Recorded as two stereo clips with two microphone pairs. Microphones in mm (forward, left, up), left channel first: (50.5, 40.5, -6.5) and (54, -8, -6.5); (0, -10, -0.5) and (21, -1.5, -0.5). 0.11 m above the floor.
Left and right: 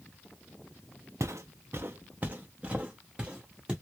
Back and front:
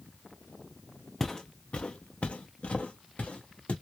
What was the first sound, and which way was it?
Footsteps, 85° right.